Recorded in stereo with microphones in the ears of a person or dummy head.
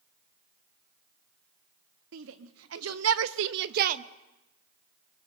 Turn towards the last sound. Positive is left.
turn(degrees=-40)  # may be behind; listen again after turning